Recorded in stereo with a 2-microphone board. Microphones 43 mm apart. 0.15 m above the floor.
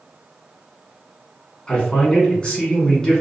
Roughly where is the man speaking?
Left.